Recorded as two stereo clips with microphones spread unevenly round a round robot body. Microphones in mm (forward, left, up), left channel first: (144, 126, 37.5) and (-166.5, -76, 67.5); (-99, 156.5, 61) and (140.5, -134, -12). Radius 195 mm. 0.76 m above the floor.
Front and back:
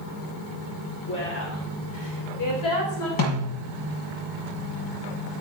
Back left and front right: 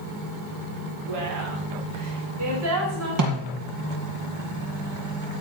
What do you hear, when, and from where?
1.1 s a woman speaking: 25° right, 2.5 m; by 3.1 s straight ahead, 4.5 m
3.2 s a snare drum: 5° right, 6 m